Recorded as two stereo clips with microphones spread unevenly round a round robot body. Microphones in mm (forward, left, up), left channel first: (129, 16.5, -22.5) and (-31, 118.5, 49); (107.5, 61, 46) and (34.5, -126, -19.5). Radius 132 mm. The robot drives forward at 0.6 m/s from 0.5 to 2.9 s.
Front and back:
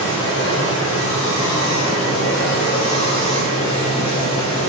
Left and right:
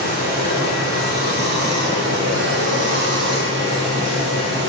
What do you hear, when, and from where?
0.0 s running water: 70° right, 6 m; by 4.7 s 85° right, 6 m